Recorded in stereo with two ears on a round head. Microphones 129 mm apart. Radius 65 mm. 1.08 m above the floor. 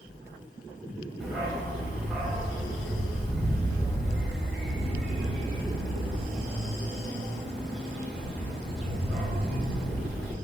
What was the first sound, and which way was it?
A dog barking, centre (ahead or behind).